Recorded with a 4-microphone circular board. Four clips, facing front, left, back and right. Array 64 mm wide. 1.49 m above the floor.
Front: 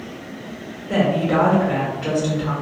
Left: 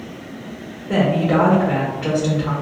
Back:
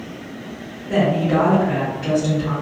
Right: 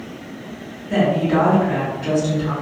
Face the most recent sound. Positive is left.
turn(degrees=80)